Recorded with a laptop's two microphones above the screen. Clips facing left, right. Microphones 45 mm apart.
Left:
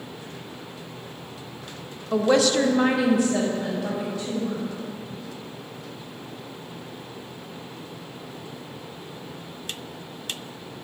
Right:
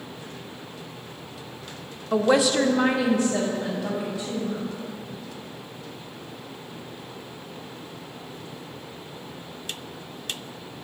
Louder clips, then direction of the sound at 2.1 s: Even; 20° right (ahead or behind).